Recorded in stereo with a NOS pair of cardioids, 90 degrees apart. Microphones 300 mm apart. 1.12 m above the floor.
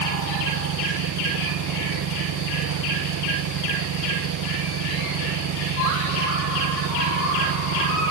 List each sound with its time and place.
0.0 s an engine running: 65° right